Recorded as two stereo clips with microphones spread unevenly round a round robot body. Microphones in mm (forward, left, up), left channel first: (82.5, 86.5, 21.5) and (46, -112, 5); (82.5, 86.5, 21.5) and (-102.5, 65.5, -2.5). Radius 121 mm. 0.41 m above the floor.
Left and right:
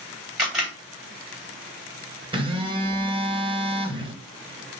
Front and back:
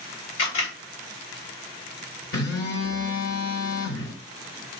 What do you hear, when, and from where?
0.4 s a camera shutter: 15° right, 3 m
2.3 s a phone buzzing: 40° right, 1.3 m